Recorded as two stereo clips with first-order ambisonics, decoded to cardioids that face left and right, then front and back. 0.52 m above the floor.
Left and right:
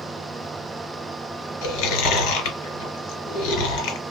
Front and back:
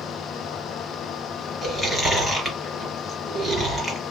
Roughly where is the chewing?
Left.